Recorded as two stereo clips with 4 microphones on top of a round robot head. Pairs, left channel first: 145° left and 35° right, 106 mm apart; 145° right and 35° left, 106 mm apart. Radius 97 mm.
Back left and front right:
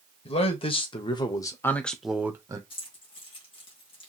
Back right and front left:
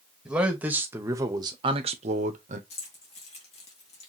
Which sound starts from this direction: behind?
Keys jangling, at 2.7 s.